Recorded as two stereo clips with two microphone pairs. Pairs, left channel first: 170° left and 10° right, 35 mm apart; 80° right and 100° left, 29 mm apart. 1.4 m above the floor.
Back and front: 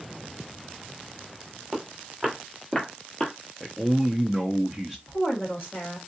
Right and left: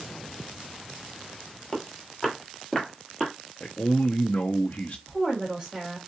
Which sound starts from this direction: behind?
A woman speaking, at 5.1 s.